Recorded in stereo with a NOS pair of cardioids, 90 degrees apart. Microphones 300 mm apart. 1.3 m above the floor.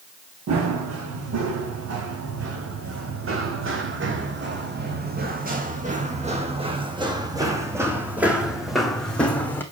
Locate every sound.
0.5 s running footsteps: 65° right, 5.5 m; by 9.6 s 5° left, 4 m